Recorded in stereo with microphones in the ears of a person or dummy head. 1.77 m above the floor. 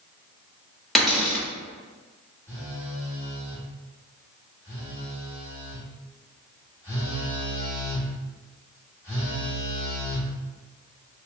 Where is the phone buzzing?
15° left (ahead or behind), 1.5 m.